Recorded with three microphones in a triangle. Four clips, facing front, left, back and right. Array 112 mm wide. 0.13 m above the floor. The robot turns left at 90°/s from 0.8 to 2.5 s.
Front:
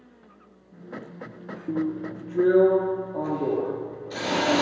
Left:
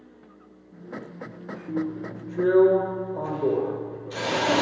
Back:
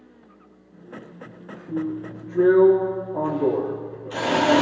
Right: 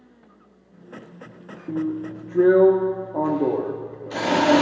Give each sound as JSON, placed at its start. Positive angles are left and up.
{"t": 1.7, "sound": "a drill", "azimuth_deg": -25, "distance_m": 4.0}